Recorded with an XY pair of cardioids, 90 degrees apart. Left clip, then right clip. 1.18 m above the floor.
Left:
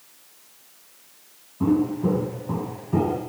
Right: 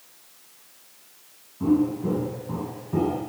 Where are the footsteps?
55° left, 6 m; by 3.2 s 40° left, 4.5 m.